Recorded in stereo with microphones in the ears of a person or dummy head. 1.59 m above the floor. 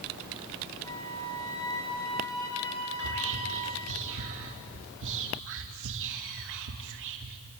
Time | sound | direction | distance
0.8 | a flute | 15° left (ahead or behind) | 2.5 m
3.0 | whispering | 65° right (ahead or behind) | 2.5 m